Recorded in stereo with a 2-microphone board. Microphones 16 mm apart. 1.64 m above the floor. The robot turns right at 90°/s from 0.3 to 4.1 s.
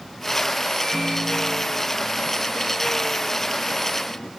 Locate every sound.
0.8 s a microwave: 170° left, 0.7 m; by 4.3 s 110° left, 0.7 m